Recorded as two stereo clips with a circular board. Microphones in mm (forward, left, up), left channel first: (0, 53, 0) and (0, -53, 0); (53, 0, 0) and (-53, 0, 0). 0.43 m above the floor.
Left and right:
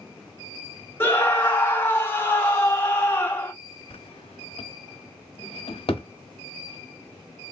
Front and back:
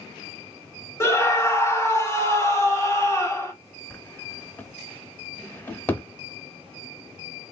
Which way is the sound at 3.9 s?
70° left.